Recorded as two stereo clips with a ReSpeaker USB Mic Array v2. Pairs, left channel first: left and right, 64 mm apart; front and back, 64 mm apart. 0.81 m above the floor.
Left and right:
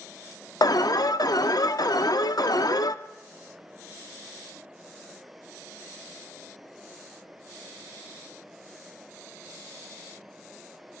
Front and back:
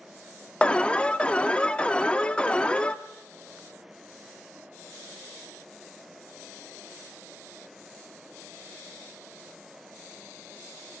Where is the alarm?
75° left, 0.9 m.